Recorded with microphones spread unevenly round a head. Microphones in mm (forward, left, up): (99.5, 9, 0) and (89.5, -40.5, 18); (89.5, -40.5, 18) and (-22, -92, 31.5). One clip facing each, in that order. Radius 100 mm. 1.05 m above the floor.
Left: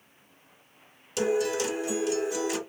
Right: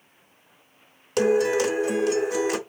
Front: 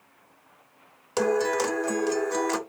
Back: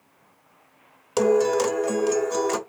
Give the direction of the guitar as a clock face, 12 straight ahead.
3 o'clock.